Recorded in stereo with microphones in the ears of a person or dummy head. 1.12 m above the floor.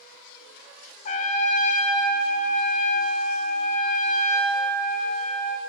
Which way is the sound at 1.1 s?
45° left (ahead or behind).